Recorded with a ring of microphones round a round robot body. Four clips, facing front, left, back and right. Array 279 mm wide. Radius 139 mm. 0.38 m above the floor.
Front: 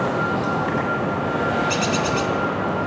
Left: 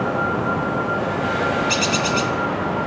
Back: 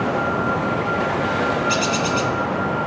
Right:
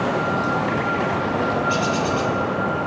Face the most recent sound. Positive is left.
turn(degrees=95)